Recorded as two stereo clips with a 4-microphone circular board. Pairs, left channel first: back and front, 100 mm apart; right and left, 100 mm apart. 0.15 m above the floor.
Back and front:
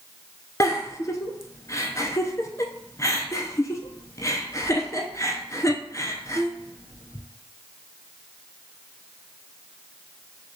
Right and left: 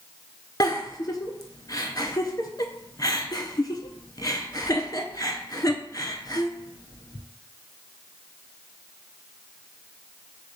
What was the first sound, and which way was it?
A giggle, 130° right.